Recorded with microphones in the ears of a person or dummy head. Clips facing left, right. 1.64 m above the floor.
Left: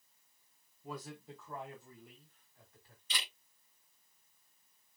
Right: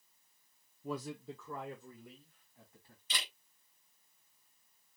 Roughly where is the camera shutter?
Right.